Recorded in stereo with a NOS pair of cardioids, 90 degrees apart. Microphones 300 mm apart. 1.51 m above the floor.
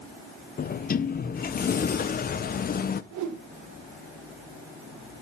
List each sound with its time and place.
0.6 s a sliding door: 30° left, 0.7 m
3.1 s a whoosh: 65° right, 1.7 m